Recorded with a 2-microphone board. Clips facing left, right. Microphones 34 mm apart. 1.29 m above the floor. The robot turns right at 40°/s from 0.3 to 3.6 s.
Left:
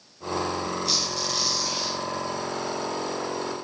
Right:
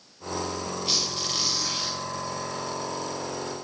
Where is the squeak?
125° right, 1.6 m; by 2.0 s 80° right, 1.6 m.